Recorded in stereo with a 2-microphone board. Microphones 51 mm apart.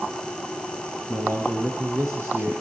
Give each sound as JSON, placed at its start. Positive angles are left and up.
{"t": 1.1, "sound": "a man speaking", "side_deg": -70, "distance_m": 6.5}